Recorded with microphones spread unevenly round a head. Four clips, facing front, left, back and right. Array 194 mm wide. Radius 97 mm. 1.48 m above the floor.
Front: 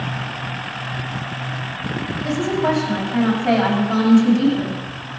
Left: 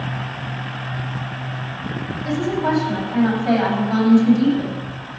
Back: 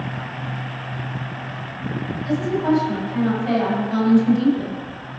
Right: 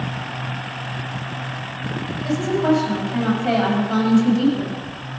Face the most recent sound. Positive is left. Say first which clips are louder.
# right 2 dB, even
turn(degrees=-55)